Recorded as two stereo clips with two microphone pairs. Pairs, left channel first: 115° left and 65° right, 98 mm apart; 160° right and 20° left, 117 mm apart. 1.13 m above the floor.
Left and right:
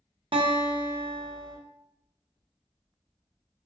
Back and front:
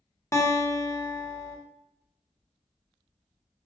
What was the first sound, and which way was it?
A guitar, 95° right.